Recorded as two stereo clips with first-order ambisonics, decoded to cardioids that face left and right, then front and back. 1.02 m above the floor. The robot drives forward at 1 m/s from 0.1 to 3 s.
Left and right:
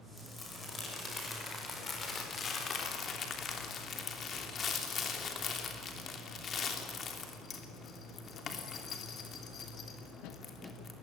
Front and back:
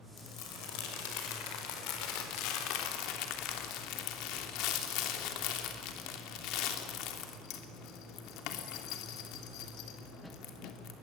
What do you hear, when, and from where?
0.2 s crumpling: 15° left, 5.5 m; by 10.9 s 25° left, 3 m